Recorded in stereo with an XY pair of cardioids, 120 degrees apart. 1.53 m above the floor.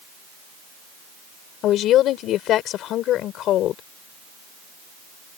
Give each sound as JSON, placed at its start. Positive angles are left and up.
{"t": 1.6, "sound": "a woman speaking", "azimuth_deg": 70}